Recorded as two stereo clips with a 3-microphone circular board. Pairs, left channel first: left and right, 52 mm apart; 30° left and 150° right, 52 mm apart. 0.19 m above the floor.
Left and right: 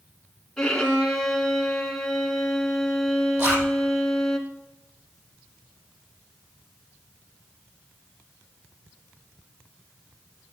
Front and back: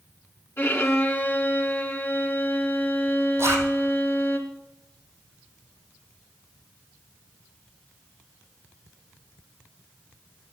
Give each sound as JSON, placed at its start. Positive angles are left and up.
{"t": 0.6, "sound": "a violin", "azimuth_deg": 15, "distance_m": 2.0}
{"t": 3.4, "sound": "a zipper", "azimuth_deg": -125, "distance_m": 4.5}